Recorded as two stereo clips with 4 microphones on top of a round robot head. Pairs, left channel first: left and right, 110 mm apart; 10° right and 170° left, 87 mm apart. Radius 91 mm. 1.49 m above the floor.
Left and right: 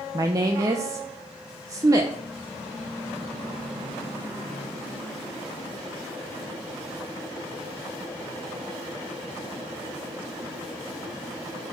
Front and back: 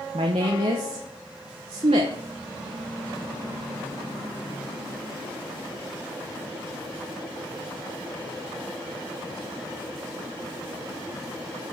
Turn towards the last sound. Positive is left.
turn(degrees=-145)